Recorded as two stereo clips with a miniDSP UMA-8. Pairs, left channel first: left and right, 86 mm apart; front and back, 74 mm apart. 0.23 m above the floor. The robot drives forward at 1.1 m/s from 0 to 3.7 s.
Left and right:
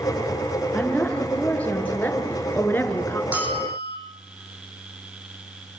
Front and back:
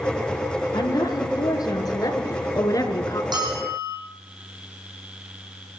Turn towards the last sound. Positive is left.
turn(degrees=-160)